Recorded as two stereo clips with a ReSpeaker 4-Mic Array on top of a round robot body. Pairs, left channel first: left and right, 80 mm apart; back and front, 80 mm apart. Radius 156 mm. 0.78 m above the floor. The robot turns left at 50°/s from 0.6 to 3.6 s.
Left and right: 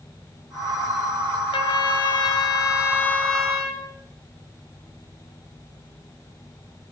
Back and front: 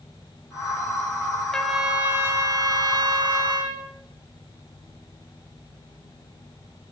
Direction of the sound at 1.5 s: 100° left.